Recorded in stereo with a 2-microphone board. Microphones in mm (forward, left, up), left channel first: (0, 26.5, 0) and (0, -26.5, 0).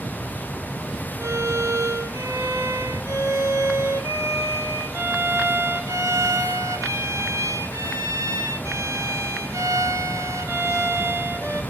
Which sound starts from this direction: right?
A violin, at 1.2 s.